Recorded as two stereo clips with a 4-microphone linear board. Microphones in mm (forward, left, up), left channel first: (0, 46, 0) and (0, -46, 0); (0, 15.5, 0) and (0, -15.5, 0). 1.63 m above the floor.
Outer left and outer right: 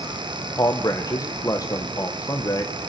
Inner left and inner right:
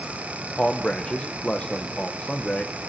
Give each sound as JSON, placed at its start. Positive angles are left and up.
{"t": 0.6, "sound": "a man speaking", "side_deg": 35, "distance_m": 1.3}